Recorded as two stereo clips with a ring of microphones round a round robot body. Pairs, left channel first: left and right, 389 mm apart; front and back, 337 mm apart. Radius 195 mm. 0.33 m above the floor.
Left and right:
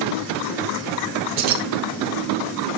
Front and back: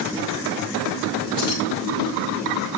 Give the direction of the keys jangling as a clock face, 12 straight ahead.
3 o'clock.